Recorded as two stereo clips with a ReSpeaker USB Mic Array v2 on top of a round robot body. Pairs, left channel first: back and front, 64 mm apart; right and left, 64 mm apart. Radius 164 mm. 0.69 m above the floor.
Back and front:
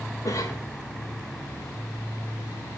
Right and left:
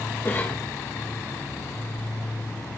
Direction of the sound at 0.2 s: 145° right.